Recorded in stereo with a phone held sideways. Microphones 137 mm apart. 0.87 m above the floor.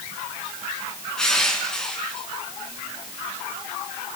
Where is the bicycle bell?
I don't hear a bicycle bell.